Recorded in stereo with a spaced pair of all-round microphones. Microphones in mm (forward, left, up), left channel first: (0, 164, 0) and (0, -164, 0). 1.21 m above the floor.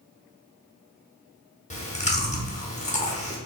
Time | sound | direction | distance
1.7 | chewing | 20° left (ahead or behind) | 0.9 m